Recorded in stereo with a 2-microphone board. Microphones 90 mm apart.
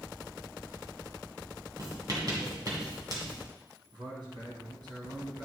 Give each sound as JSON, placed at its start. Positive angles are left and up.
{"t": 1.8, "sound": "writing", "side_deg": -45, "distance_m": 2.5}
{"t": 3.9, "sound": "a man speaking", "side_deg": -60, "distance_m": 3.0}